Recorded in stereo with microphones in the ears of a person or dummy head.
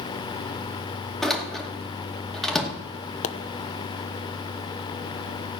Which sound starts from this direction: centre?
A door slam, at 1.2 s.